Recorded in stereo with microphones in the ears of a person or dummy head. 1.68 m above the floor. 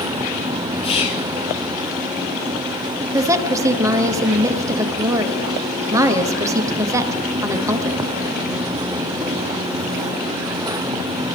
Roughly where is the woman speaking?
Centre.